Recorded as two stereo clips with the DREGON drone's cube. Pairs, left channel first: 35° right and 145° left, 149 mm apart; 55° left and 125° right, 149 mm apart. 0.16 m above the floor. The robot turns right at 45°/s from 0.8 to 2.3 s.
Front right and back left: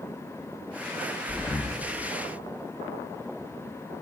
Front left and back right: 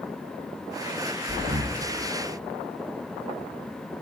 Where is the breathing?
100° right, 1.8 m; by 1.8 s 80° right, 1.8 m.